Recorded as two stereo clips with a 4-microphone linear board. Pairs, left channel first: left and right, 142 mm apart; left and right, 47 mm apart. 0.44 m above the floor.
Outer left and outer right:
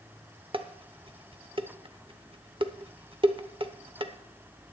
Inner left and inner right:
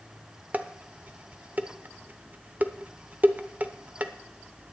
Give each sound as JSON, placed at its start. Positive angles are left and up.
{"t": 0.5, "sound": "dishes clattering", "side_deg": -40, "distance_m": 0.8}